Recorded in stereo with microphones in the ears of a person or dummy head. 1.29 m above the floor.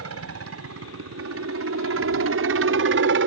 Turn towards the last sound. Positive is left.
turn(degrees=-60)  # may be behind; listen again after turning